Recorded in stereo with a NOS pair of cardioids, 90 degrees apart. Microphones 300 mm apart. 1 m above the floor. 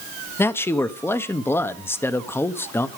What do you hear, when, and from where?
0.4 s a man speaking: 10° left, 1.0 m